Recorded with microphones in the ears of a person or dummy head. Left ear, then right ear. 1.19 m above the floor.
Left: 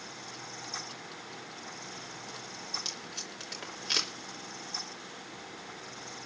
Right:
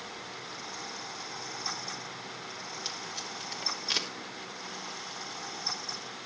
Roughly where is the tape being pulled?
Centre.